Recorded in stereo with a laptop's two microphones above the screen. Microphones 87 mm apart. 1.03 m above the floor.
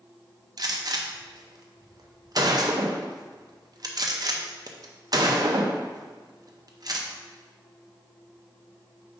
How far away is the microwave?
I don't hear a microwave.